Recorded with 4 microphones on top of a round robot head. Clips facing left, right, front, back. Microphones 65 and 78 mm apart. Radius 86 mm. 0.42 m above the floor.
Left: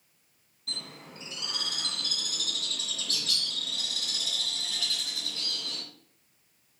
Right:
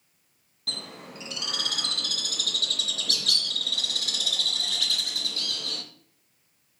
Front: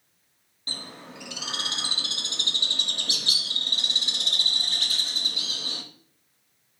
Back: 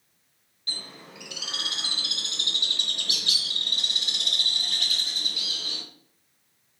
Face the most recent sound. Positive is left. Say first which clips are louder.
# right 4 dB, front 2 dB
turn(degrees=-60)